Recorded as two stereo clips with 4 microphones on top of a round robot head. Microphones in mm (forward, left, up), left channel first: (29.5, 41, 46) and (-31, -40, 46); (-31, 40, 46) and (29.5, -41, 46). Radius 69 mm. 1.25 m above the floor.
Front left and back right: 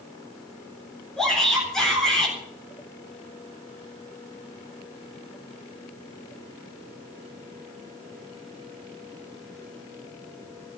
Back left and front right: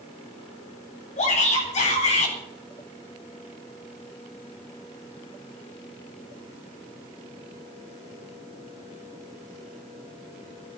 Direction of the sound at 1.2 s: 140° left.